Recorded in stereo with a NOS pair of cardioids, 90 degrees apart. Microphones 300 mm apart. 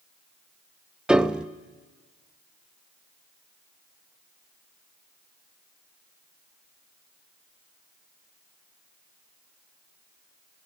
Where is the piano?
5° right, 0.9 m.